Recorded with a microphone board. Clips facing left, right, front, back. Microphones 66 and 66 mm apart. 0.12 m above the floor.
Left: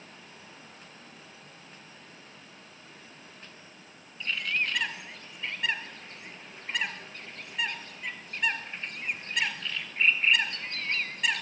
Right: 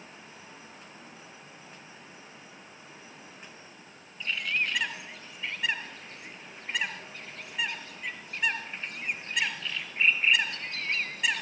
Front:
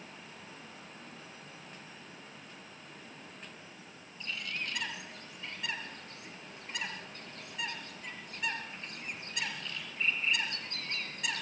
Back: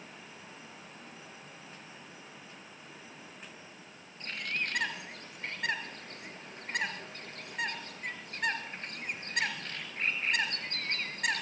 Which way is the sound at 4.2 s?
175° right.